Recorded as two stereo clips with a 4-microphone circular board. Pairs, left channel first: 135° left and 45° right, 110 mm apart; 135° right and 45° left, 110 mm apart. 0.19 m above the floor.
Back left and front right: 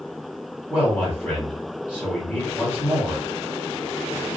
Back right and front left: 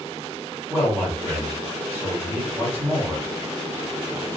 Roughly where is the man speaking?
Left.